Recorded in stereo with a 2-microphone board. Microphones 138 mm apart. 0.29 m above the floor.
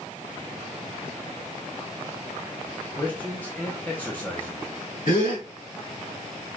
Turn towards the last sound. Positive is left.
turn(degrees=70)  # may be behind; listen again after turning